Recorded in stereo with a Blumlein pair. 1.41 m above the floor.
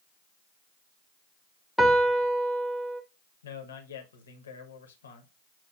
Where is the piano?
Straight ahead, 0.7 m.